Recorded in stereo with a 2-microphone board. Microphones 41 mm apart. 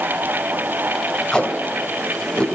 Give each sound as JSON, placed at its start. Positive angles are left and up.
{"t": 1.3, "sound": "tape being pulled", "side_deg": 20, "distance_m": 3.0}